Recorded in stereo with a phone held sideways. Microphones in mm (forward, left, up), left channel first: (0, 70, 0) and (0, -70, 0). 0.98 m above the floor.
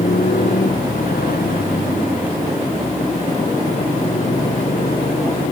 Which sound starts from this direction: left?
A motorcycle, at 0.0 s.